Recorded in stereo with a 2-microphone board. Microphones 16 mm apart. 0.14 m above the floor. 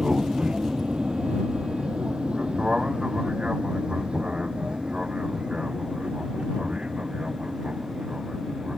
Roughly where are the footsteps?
I don't hear footsteps.